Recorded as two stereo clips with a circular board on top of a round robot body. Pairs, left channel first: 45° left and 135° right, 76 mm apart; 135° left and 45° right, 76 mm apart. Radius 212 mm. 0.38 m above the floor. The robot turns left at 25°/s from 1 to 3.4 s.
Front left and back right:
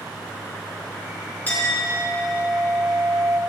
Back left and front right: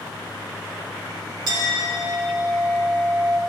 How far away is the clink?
About 6 m.